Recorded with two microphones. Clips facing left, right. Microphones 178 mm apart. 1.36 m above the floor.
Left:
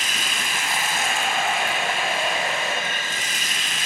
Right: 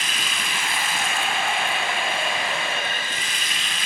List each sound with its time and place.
0.0 s running water: 45° left (ahead or behind), 0.9 m